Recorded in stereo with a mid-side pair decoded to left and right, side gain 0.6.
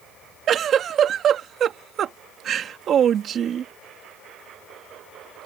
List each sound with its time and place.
0.5 s a giggle: 50° right